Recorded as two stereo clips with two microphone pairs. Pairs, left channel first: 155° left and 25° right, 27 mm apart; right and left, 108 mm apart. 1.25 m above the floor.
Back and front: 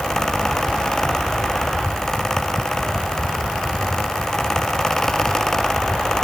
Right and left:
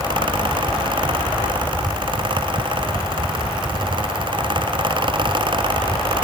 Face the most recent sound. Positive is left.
No sound to turn to.